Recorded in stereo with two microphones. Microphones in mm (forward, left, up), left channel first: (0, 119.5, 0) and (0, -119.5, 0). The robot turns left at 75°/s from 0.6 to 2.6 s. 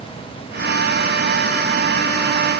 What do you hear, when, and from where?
Only background noise.